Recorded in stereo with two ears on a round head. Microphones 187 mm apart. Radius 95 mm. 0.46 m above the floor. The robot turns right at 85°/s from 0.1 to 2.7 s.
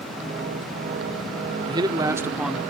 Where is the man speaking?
20° right (ahead or behind), 0.9 m; by 2.6 s centre (ahead or behind), 0.9 m.